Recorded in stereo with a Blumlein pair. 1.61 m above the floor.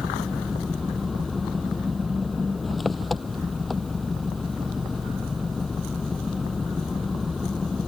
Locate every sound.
0.0 s an engine running: 10° left